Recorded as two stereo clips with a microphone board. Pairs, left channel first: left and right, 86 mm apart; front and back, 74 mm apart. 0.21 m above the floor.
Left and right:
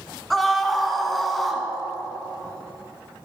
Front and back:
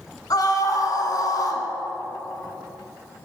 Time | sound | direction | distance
0.3 | a scream | 5° left | 1.5 m